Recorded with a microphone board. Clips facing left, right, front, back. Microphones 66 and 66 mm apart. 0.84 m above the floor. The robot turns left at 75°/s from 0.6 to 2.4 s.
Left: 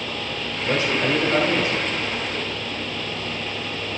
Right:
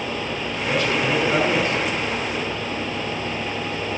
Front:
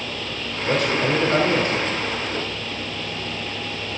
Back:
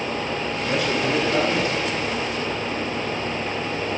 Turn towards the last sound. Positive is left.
turn(degrees=-95)